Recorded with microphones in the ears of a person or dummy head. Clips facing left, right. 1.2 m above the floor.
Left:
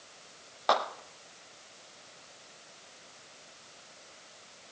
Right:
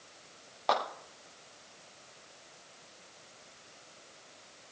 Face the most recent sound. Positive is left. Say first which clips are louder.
# left 2 dB
turn(degrees=10)  # may be behind; listen again after turning